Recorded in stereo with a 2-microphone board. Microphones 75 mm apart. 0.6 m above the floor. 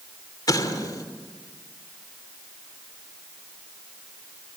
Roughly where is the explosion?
Left.